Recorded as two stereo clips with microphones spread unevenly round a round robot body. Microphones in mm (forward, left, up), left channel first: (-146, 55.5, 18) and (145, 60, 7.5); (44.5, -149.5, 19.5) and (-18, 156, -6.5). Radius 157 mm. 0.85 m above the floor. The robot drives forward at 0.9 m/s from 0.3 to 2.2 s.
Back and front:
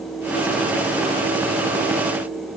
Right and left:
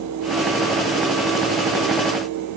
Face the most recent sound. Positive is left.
No sound to turn to.